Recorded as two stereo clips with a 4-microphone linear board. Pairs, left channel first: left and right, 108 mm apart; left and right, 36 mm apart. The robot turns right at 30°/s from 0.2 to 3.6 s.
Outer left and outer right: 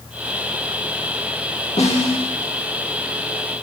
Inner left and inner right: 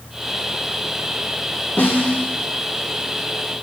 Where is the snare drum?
80° left, 6 m; by 2.3 s 65° left (ahead or behind), 6 m.